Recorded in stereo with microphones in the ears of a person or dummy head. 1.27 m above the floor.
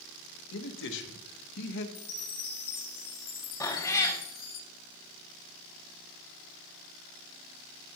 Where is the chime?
50° left (ahead or behind), 1.3 m.